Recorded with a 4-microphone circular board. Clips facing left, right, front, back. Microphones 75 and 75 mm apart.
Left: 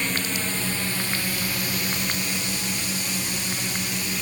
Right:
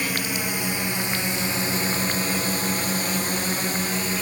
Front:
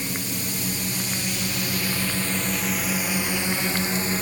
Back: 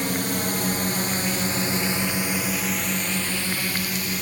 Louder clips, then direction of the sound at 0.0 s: Right 1 dB, back 5 dB; 170° right.